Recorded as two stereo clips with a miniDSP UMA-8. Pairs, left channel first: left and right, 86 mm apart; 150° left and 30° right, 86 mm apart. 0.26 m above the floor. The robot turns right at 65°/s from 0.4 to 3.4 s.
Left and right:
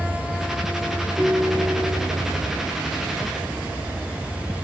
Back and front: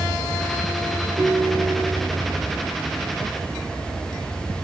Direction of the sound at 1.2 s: 25° right.